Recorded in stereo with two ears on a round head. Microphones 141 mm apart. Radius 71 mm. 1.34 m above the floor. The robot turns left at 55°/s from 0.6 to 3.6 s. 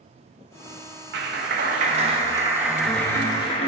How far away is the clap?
About 1.0 m.